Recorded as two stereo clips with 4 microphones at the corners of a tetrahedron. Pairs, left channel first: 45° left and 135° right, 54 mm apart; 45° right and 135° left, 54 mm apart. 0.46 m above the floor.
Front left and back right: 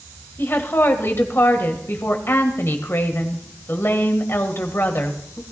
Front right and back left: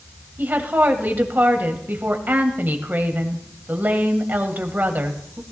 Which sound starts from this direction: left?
A woman speaking, at 0.4 s.